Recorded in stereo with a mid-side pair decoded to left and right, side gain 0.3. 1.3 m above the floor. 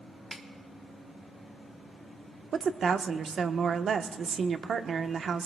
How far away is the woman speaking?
About 1.0 m.